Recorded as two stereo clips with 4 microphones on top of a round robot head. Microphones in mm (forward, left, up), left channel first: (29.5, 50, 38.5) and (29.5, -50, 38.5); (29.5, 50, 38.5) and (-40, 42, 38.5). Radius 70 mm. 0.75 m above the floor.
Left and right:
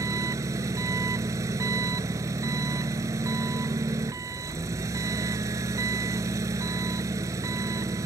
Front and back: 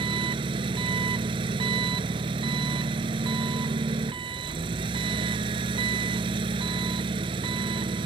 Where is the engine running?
155° right.